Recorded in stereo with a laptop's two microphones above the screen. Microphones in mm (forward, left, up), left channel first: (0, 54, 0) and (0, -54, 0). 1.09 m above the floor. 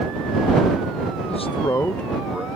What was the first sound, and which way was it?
A man speaking, 80° left.